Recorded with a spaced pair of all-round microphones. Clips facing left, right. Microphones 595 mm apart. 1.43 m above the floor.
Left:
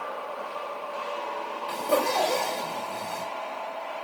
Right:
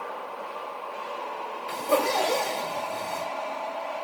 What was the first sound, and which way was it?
A zipper, 35° right (ahead or behind).